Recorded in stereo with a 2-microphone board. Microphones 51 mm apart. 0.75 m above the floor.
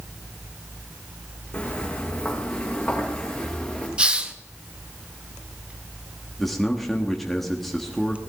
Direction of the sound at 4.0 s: 20° right (ahead or behind).